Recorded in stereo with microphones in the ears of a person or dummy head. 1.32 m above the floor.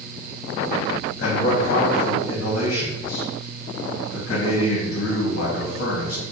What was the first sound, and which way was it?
A man speaking, 50° left (ahead or behind).